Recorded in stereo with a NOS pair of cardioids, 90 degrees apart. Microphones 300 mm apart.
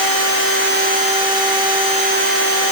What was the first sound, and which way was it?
Only background noise.